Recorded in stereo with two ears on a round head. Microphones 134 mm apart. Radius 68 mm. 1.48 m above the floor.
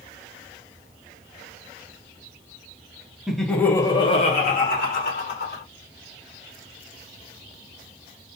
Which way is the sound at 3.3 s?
5° right (ahead or behind).